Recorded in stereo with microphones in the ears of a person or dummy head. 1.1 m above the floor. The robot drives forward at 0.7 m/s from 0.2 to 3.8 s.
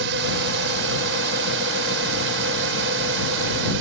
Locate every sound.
0.0 s a drone: 70° right (ahead or behind)